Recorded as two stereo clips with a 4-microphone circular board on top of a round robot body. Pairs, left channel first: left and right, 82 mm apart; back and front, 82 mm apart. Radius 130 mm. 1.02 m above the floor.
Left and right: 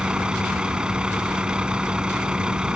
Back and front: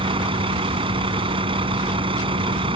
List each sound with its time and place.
0.0 s a vehicle: 10° right